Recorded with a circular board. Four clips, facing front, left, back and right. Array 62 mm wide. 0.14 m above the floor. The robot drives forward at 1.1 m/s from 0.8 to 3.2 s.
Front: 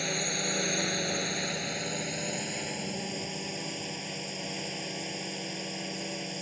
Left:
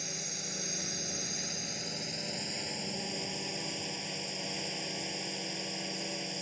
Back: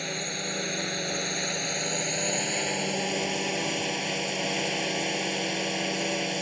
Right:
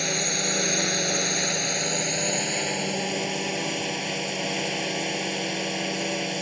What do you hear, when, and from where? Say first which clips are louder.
0.0 s a drone: right 16 dB, front 1 dB; 95° right; by 6.4 s 130° right